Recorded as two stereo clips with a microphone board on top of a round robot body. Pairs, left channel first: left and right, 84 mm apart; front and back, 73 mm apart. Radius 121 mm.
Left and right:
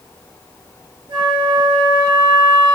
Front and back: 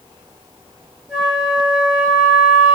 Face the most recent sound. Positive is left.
turn(degrees=-95)